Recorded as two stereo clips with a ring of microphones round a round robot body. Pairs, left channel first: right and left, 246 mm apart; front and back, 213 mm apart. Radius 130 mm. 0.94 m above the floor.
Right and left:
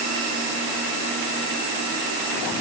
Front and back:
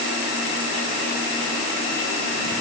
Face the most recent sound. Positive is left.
No sound to turn to.